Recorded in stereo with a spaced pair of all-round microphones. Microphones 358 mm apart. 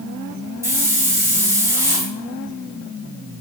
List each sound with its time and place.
0.6 s a hiss: 10° right (ahead or behind), 1.0 m